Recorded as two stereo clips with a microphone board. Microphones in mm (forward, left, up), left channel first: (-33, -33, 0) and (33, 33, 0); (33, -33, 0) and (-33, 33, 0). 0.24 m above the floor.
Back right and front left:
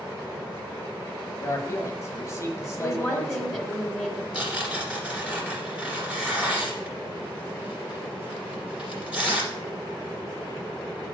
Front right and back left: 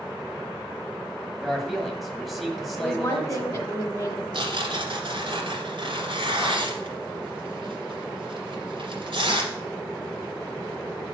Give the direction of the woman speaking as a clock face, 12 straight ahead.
1 o'clock.